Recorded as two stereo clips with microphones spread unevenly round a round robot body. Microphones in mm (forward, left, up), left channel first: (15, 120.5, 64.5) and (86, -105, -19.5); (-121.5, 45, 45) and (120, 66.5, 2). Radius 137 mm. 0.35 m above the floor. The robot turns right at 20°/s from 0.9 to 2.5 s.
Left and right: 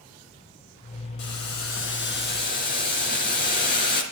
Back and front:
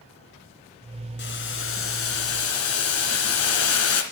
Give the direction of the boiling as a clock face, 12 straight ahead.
7 o'clock.